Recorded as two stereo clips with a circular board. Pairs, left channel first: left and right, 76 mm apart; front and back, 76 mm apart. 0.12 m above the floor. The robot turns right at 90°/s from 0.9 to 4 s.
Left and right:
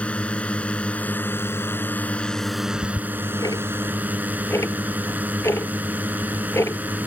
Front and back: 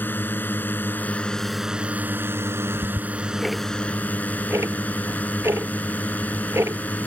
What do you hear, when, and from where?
0.0 s a drone: 35° left; by 7.1 s 50° right
2.7 s ticking: 15° left; by 7.1 s 130° left